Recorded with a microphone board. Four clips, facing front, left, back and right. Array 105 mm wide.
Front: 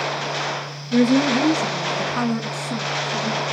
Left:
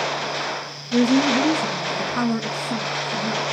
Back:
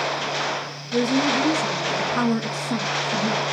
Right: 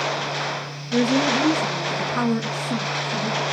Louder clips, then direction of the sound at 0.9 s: Left 2 dB, front 4 dB; 15° right.